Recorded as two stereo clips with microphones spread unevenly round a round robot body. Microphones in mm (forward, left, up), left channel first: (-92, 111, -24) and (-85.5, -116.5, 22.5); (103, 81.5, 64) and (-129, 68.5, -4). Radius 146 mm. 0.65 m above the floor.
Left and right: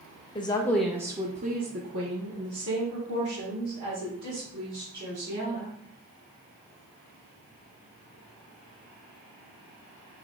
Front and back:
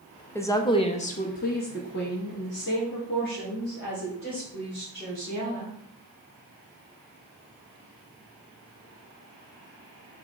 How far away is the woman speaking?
About 0.6 m.